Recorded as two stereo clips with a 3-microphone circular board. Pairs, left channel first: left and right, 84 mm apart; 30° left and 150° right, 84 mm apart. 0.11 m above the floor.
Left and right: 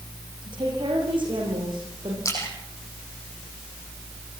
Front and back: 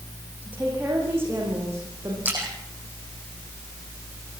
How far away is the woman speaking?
About 7 m.